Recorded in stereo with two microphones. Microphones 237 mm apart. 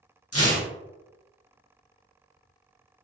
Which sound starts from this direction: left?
Tearing paper, at 0.3 s.